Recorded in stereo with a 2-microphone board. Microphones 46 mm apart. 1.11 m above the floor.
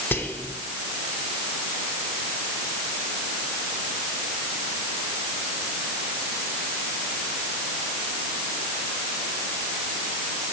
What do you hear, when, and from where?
0.1 s whispering: 50° left (ahead or behind), 0.8 m